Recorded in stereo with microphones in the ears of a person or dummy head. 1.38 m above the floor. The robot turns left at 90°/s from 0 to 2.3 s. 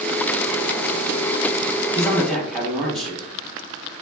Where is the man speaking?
35° left, 1.2 m; by 3.2 s straight ahead, 1.2 m.